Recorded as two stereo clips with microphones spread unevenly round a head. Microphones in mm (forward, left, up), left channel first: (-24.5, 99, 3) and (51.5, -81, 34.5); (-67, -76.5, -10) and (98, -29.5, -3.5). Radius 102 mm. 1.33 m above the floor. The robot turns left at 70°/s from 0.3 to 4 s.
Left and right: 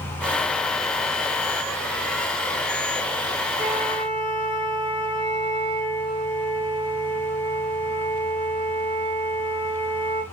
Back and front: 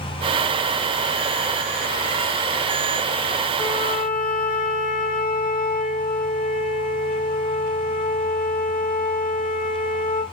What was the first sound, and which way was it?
A flute, 105° right.